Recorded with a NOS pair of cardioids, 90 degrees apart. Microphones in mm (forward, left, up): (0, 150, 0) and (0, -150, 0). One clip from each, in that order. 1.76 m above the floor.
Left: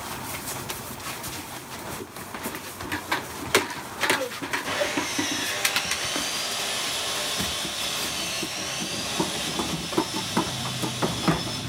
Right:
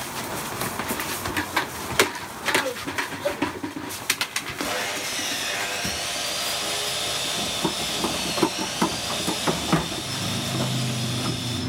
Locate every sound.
4.6 s sawing: 15° right, 0.9 m